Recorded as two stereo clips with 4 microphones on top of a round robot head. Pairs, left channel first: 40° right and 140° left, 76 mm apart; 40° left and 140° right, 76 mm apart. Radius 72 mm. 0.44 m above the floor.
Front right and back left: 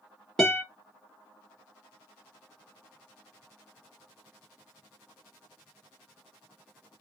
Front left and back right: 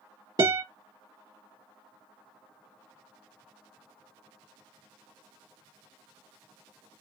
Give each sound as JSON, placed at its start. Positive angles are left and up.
{"t": 0.4, "sound": "a guitar", "azimuth_deg": -125, "distance_m": 1.7}